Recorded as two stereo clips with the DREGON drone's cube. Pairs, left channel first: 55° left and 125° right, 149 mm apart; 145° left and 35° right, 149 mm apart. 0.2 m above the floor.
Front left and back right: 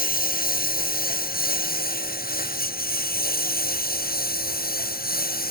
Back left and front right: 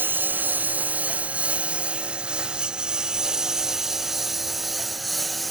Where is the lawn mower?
45° left; by 5.5 s 55° left.